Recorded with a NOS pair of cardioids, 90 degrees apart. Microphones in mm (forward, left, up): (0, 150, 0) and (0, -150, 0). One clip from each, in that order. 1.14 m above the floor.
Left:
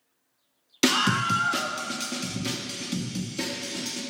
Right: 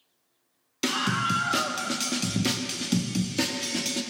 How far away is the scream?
About 0.7 m.